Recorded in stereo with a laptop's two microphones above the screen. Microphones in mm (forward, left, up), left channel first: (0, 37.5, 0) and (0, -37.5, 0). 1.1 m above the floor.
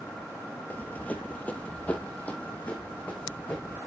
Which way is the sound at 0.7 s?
20° left (ahead or behind).